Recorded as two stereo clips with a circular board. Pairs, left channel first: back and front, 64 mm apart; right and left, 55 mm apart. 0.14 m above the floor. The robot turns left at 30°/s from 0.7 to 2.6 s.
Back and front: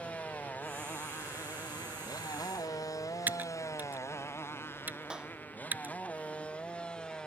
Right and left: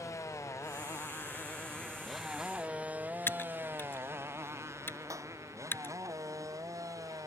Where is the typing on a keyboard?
55° right.